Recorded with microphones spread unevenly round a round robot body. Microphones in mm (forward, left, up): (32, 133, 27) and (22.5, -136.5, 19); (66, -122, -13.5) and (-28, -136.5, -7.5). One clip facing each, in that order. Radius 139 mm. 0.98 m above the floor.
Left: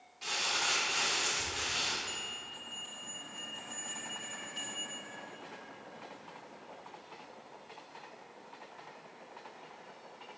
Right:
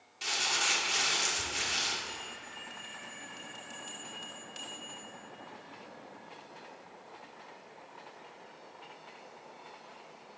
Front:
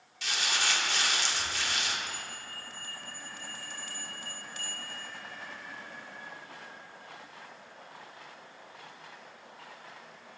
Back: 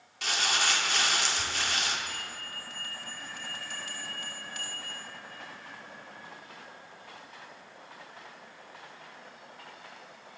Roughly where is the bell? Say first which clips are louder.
Right 1 dB, back 1 dB; behind right.